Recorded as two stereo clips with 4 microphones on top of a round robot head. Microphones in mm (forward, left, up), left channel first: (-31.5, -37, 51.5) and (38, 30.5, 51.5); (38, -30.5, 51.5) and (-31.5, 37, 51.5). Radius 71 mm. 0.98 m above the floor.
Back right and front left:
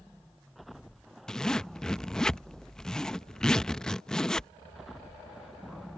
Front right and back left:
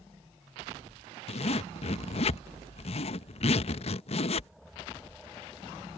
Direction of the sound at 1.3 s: 50° right.